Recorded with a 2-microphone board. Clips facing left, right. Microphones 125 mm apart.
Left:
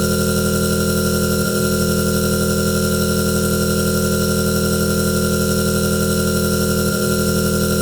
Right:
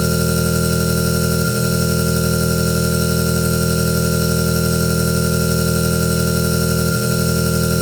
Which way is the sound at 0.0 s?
15° left (ahead or behind).